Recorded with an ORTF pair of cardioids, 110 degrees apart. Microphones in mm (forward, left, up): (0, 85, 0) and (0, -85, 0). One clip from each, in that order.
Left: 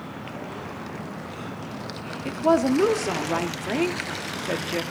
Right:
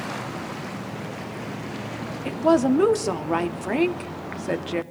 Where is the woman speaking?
10° right, 0.8 m.